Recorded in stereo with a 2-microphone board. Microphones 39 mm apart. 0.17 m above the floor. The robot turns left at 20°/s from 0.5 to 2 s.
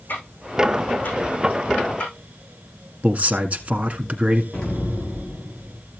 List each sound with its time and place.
0.1 s ticking: 55° left (ahead or behind), 9 m; by 2.1 s 25° left (ahead or behind), 9 m
3.0 s a man speaking: 45° right (ahead or behind), 1.7 m
4.5 s an explosion: 15° left (ahead or behind), 5.5 m